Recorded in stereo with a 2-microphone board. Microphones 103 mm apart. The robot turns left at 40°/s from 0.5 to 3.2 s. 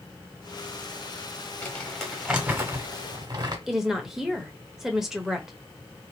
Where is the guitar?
I don't hear a guitar.